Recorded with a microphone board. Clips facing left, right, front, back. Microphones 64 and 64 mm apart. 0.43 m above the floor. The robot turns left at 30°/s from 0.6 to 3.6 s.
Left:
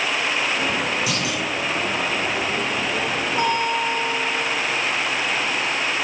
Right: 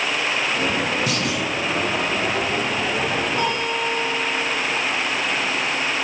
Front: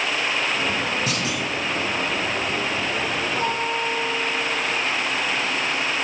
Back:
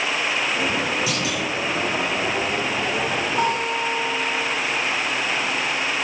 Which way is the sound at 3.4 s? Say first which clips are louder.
Left 2 dB, back 3 dB; 165° left.